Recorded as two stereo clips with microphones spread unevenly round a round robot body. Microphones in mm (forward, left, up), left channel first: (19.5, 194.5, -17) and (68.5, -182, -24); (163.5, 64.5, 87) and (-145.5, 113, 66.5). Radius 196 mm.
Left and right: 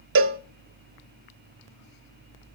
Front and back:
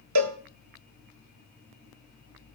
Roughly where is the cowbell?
Behind right.